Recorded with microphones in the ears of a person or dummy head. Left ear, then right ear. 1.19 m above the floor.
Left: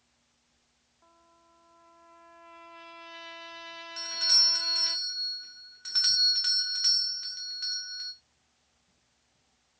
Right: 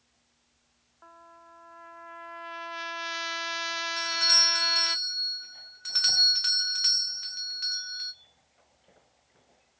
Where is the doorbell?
5° right (ahead or behind), 0.9 m.